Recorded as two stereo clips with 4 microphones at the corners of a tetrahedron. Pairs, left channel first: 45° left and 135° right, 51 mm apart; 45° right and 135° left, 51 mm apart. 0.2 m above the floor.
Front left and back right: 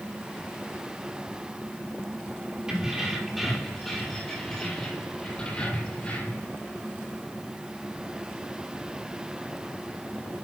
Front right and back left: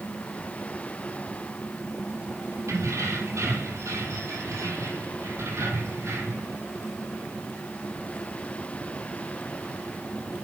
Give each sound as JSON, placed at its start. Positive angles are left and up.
{"t": 2.7, "sound": "keys jangling", "azimuth_deg": 145, "distance_m": 4.5}